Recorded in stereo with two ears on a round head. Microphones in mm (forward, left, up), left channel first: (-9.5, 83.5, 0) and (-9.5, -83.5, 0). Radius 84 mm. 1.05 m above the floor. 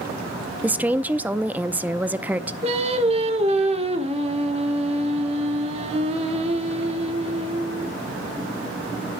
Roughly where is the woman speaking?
Centre.